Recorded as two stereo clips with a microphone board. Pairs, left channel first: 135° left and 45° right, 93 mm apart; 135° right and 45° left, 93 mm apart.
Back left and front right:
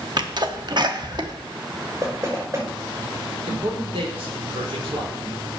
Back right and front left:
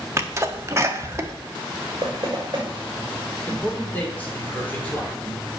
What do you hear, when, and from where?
0.2 s a sneeze: 10° right, 1.2 m
2.0 s knocking: 5° left, 5 m
3.5 s a man speaking: 65° right, 3.5 m